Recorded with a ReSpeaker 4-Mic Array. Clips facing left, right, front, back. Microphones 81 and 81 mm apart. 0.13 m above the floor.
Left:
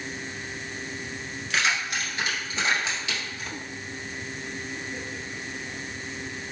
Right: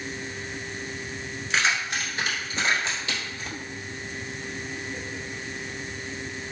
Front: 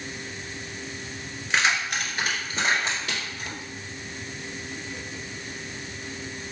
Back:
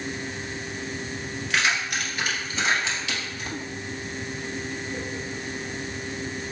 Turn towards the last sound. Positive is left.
turn(degrees=-35)